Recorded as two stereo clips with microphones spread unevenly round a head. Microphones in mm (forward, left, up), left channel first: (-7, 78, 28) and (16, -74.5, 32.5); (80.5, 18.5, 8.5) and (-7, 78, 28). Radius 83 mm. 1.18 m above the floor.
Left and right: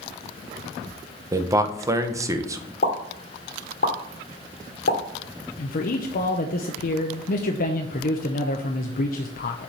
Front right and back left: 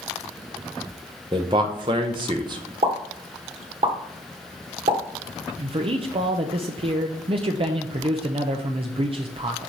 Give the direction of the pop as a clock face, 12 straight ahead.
8 o'clock.